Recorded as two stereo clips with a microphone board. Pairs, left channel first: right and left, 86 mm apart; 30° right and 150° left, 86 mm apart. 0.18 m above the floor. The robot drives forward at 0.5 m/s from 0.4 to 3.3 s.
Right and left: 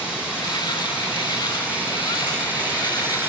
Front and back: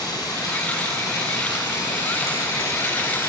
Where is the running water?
15° left, 2.5 m; by 3.3 s 30° left, 1.3 m.